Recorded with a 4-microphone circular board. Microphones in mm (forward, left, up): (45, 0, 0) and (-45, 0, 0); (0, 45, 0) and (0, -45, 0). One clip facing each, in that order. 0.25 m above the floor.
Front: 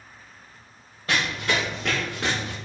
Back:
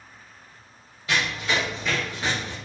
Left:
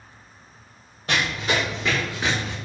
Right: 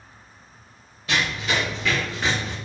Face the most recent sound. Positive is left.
turn(degrees=0)